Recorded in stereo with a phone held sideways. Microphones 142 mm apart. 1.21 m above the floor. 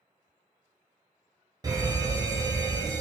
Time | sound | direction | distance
1.6 | a fire alarm | 25° right (ahead or behind) | 1.1 m